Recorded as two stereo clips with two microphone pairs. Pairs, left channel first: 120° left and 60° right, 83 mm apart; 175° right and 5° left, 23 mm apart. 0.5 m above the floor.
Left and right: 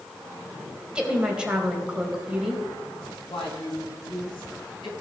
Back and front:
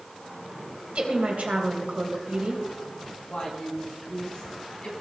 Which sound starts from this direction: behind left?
A woman speaking, at 3.3 s.